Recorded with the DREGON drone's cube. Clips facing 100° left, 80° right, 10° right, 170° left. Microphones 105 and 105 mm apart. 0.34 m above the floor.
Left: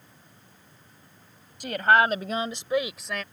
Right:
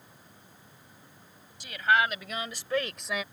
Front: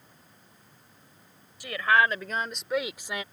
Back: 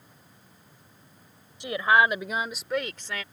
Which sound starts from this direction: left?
A woman speaking, at 1.6 s.